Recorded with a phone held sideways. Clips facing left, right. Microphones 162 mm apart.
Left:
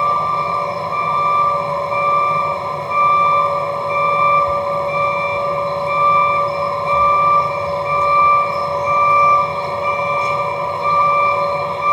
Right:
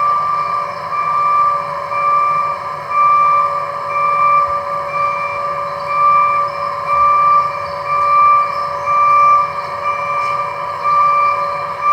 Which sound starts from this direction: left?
A vehicle, at 0.0 s.